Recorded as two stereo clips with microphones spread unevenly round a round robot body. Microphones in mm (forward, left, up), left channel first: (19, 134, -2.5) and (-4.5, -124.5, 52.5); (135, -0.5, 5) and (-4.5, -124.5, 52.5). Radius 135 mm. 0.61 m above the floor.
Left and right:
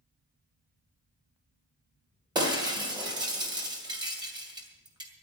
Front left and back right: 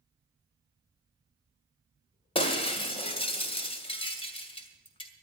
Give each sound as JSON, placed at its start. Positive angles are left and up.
{"t": 2.4, "sound": "breaking glass", "azimuth_deg": -20, "distance_m": 2.5}